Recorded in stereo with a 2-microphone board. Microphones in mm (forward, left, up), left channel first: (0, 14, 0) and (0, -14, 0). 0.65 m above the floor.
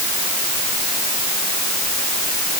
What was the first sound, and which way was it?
Only background noise.